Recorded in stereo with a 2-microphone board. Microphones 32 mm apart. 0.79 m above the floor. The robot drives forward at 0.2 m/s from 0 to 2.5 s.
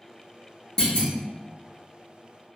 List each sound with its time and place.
0.8 s a clunk: 25° left (ahead or behind), 1.1 m